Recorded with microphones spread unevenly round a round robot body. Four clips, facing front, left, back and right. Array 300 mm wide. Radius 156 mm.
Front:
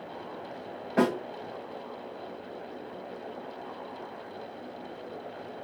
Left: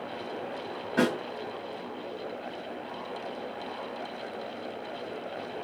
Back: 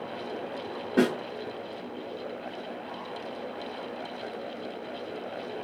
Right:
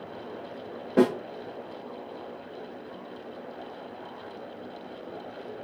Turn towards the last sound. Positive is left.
turn(degrees=-115)